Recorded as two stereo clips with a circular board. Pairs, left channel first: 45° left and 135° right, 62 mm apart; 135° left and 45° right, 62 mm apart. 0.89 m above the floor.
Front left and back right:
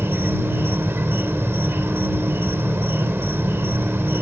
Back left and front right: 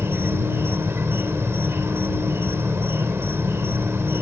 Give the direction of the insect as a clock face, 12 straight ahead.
3 o'clock.